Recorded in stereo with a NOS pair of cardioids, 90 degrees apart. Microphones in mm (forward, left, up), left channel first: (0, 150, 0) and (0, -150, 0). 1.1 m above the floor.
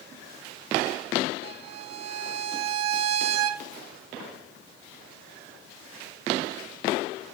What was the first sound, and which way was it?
A violin, 65° right.